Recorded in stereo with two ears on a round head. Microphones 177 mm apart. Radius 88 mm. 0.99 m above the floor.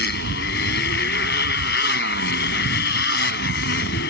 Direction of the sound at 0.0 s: 60° left (ahead or behind).